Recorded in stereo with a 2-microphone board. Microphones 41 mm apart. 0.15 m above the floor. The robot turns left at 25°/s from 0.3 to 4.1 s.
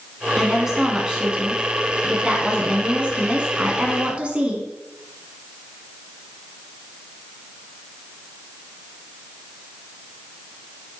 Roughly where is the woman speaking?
Centre.